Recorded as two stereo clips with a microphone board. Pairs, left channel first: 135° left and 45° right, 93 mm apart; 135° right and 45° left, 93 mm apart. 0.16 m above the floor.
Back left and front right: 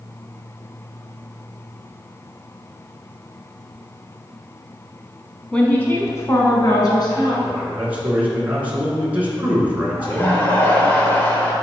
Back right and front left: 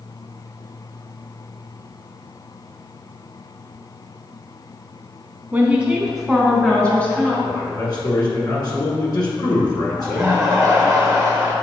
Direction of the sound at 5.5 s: 75° left.